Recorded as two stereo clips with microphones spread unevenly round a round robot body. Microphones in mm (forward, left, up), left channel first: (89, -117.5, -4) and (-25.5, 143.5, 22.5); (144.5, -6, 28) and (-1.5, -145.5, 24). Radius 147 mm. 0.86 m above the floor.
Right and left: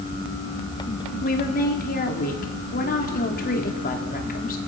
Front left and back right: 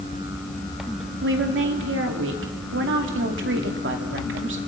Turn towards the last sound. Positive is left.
turn(degrees=-125)